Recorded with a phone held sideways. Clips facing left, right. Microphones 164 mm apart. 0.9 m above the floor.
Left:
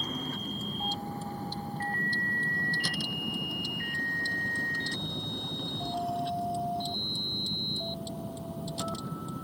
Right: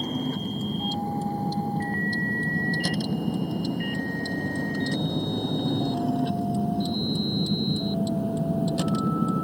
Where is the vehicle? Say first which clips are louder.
Right 8 dB; 35° right (ahead or behind); by 9.4 s 80° right.